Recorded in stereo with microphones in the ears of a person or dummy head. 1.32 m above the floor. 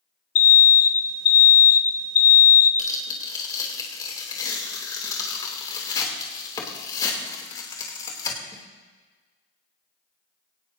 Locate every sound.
0.3 s an alarm: 75° left (ahead or behind), 0.8 m
2.8 s tearing paper: 20° left (ahead or behind), 3 m